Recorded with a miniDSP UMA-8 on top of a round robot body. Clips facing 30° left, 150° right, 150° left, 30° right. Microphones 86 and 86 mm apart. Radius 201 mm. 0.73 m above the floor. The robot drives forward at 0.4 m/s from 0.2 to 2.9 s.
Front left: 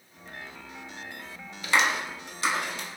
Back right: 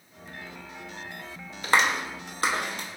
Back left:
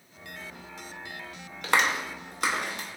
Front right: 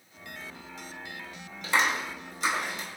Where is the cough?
No cough in this recording.